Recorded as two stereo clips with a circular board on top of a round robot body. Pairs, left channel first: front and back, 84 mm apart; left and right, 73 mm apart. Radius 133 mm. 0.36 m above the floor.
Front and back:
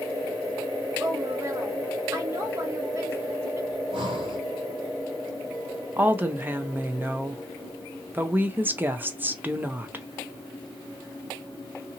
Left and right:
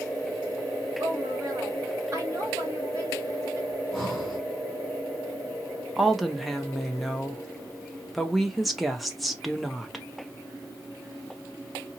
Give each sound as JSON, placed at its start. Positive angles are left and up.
{"t": 1.0, "sound": "a woman speaking", "azimuth_deg": -135, "distance_m": 2.0}
{"t": 3.7, "sound": "breathing", "azimuth_deg": 175, "distance_m": 1.8}
{"t": 6.0, "sound": "a woman speaking", "azimuth_deg": 180, "distance_m": 0.9}